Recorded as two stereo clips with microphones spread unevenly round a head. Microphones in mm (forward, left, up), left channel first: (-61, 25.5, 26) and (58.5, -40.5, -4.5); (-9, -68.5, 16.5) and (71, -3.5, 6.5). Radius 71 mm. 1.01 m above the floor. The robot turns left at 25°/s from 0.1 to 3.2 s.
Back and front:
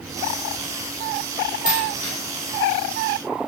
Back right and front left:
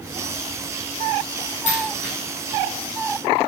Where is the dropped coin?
170° left, 4 m; by 2.1 s 160° left, 4 m.